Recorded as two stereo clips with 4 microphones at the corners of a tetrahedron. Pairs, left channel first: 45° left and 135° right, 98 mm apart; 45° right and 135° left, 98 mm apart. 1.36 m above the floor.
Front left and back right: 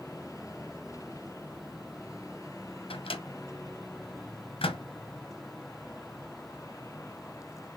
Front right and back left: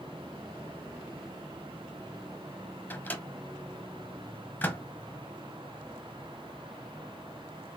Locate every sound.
2.9 s a microwave: 25° left, 0.8 m